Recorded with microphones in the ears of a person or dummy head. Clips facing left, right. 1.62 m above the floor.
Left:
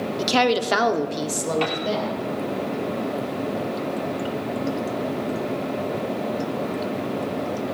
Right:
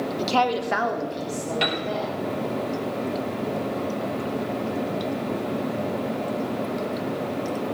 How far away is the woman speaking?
About 0.9 m.